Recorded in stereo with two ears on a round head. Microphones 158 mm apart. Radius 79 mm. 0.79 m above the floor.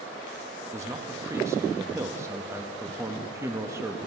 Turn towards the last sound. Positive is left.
turn(degrees=-15)  # may be behind; listen again after turning